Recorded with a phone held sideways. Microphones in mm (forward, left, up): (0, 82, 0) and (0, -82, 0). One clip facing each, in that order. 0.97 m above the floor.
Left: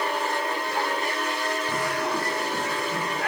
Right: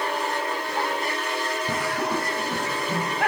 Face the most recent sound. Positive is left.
turn(degrees=-60)  # may be behind; listen again after turning